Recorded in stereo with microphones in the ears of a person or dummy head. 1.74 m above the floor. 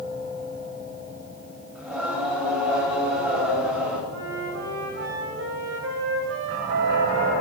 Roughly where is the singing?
Centre.